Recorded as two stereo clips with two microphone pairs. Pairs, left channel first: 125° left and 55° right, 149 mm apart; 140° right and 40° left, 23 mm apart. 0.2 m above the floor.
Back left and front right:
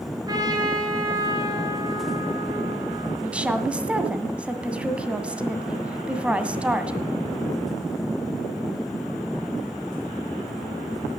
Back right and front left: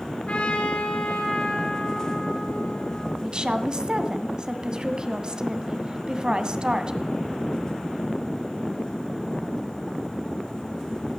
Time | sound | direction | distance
0.3 | a trumpet | 115° right | 4 m
3.2 | a woman speaking | 20° left | 1.8 m